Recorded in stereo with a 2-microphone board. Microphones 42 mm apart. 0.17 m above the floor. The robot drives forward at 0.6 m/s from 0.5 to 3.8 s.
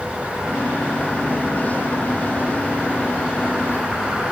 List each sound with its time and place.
Only background noise.